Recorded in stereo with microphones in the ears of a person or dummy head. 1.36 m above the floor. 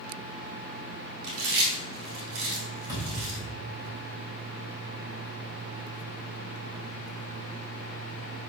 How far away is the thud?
About 4 m.